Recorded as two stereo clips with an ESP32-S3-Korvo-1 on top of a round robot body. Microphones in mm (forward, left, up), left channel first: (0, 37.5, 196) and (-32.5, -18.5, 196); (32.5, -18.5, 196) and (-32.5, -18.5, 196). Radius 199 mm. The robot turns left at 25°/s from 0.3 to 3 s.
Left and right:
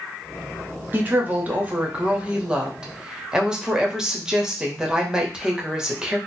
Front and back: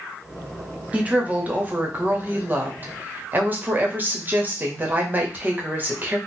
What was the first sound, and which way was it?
A woman speaking, 140° right.